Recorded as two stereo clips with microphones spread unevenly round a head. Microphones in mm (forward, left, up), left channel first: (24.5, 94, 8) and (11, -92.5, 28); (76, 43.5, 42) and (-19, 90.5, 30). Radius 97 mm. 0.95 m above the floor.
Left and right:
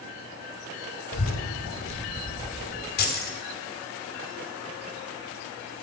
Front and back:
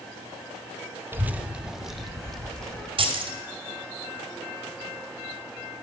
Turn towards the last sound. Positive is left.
turn(degrees=125)